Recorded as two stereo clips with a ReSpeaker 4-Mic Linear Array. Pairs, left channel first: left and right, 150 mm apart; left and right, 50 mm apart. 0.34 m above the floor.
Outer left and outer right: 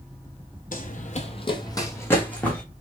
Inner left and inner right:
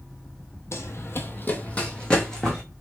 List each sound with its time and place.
0.7 s running footsteps: 70° left (ahead or behind), 0.7 m; by 2.6 s 5° left (ahead or behind), 1.5 m